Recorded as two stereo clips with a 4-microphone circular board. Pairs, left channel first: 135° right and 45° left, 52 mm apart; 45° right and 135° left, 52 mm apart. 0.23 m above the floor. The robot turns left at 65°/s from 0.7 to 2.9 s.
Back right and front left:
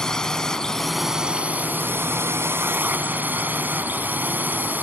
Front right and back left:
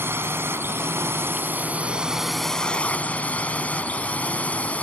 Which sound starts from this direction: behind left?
A drone, at 0.0 s.